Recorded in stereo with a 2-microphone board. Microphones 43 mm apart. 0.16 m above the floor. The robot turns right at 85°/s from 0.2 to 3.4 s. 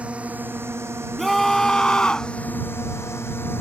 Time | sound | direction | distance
0.0 | a drone | 30° right (ahead or behind) | ?
1.2 | a scream | centre (ahead or behind) | ?